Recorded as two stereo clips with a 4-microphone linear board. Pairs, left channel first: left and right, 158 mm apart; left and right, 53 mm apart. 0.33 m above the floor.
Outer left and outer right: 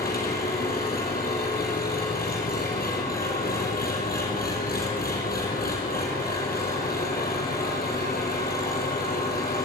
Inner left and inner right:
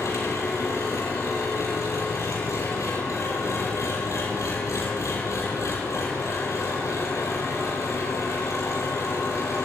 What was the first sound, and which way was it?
An engine running, 80° left.